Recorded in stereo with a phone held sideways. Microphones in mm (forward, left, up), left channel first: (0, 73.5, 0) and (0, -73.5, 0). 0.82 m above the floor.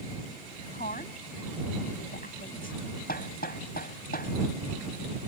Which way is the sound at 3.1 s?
85° left.